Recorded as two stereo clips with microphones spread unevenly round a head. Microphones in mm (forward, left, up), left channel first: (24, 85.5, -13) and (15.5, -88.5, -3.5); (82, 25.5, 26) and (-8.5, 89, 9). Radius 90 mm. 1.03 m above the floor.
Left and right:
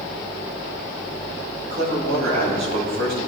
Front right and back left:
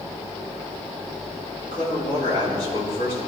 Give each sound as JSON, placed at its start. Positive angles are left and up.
{"t": 1.6, "sound": "a man speaking", "azimuth_deg": -95, "distance_m": 5.0}